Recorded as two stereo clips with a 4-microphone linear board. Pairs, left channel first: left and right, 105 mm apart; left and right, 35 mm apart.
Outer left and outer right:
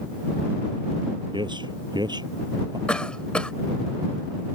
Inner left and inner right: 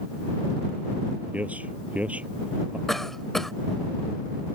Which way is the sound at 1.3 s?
50° right (ahead or behind).